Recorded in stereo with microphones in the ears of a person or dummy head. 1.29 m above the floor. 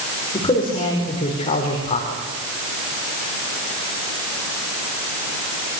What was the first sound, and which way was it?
A man speaking, 30° left (ahead or behind).